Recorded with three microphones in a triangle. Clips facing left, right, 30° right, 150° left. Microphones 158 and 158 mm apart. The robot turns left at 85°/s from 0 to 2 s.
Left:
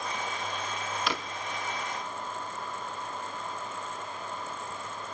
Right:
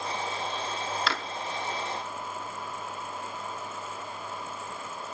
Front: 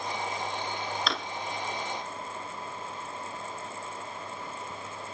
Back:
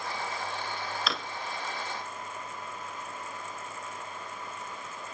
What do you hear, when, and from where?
1.1 s a drawer: 70° left, 0.5 m; by 1.2 s 55° left, 0.5 m